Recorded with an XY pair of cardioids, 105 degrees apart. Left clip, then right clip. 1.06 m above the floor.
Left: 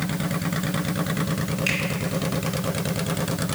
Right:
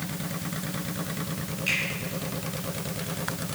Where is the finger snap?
65° left, 3.5 m.